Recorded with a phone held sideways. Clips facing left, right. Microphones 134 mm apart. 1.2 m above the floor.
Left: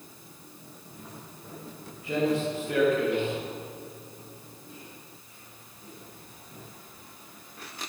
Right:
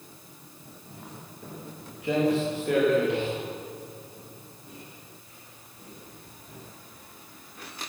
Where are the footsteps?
75° right (ahead or behind), 9.5 m; by 6.6 s 85° right, 17 m.